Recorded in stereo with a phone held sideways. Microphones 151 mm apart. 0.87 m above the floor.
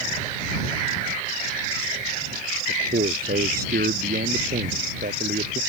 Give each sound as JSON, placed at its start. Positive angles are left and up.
{"t": 2.7, "sound": "a man speaking", "side_deg": -85}